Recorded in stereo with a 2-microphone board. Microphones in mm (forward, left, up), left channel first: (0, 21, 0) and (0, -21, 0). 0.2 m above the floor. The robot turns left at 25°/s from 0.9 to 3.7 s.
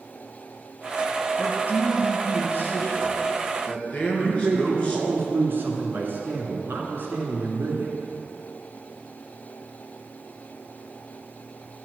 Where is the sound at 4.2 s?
55° right (ahead or behind), 2.5 m.